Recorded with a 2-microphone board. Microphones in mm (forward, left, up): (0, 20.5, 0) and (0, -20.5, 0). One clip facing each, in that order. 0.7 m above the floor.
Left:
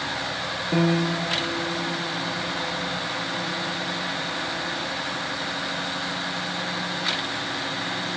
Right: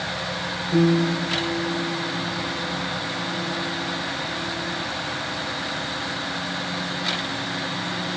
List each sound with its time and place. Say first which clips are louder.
0.7 s a piano: right 3 dB; 40° left (ahead or behind), 0.6 m